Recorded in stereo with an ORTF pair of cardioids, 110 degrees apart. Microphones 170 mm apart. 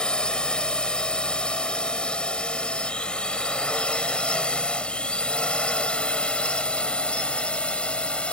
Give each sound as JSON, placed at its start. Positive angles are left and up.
{"t": 0.0, "sound": "a drone", "azimuth_deg": 5}